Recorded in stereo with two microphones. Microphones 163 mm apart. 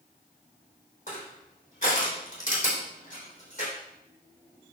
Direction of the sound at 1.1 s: 50° left (ahead or behind).